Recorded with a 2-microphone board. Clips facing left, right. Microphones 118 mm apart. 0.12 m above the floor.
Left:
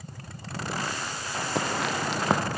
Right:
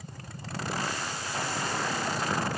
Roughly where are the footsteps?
Left.